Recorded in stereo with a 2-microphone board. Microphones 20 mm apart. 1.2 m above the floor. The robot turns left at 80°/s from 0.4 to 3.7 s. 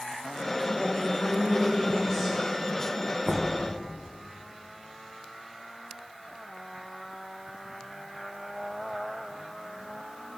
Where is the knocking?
65° right (ahead or behind), 0.9 m; by 3.5 s 75° right (ahead or behind), 0.9 m.